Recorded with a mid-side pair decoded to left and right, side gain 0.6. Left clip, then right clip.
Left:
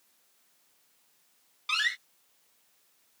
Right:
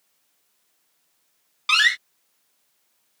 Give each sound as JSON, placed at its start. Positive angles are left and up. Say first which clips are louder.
{"t": 1.7, "sound": "a door slam", "louder": "right 11 dB", "azimuth_deg": -55}